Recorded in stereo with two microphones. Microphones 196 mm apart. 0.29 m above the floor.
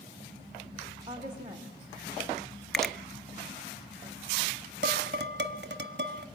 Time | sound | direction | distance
1.1 | a woman speaking | 20° right (ahead or behind) | 1.8 m
2.7 | a finger snap | centre (ahead or behind) | 0.8 m
4.8 | dishes clattering | 60° right (ahead or behind) | 1.1 m